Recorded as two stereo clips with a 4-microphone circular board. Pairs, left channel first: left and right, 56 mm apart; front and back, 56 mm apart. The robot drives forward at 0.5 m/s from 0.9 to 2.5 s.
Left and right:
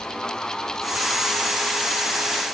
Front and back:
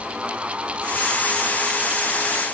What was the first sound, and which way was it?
Only background noise.